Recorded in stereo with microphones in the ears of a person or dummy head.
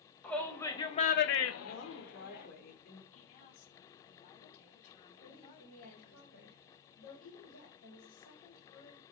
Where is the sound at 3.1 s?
35° left (ahead or behind), 3.5 m.